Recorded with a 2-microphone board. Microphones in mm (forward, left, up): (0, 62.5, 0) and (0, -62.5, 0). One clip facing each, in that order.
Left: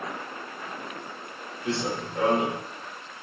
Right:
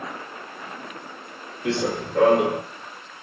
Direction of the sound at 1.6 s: 75° right (ahead or behind).